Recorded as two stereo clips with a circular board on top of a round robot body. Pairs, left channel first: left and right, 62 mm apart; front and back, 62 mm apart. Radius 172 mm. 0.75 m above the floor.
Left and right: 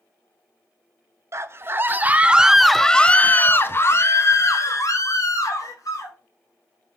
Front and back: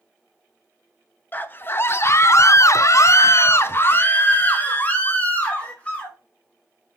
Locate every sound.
1.3 s a scream: 55° right, 1.1 m; by 6.2 s 70° left, 2 m